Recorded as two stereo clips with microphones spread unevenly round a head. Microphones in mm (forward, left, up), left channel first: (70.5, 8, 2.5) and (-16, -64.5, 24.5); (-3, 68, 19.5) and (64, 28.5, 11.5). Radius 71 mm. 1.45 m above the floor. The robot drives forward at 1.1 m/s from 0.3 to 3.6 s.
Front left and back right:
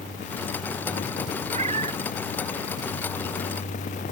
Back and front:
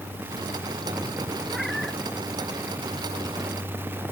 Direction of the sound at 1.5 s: 120° right.